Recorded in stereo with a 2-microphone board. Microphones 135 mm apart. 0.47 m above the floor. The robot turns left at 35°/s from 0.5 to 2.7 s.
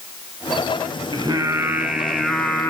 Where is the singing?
145° right, 1.2 m; by 2.7 s 160° left, 1.2 m.